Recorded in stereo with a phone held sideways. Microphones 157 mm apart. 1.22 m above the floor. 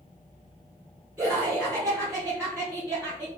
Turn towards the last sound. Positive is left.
turn(degrees=-15)  # may be behind; listen again after turning